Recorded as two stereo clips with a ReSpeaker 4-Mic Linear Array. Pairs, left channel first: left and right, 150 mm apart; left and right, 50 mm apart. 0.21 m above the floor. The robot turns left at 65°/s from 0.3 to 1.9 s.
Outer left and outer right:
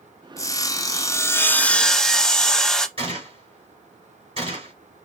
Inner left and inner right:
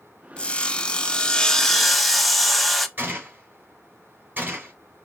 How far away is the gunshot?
About 3 m.